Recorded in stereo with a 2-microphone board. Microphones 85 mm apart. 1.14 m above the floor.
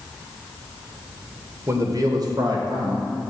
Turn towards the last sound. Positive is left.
turn(degrees=-50)  # may be behind; listen again after turning